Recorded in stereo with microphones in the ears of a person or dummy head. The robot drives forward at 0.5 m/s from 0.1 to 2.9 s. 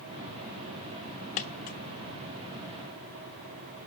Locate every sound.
1.4 s a dropped coin: 35° left (ahead or behind), 0.9 m